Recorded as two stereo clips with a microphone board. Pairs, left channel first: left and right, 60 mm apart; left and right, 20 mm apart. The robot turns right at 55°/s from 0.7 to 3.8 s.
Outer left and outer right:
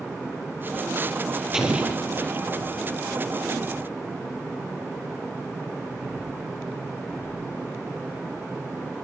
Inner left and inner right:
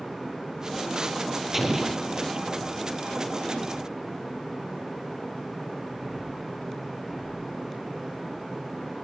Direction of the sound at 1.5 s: 175° right.